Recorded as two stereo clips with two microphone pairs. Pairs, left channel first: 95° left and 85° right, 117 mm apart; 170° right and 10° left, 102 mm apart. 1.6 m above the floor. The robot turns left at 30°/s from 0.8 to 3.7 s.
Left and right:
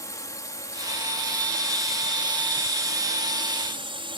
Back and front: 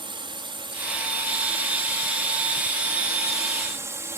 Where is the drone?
35° left; by 4.2 s 55° right.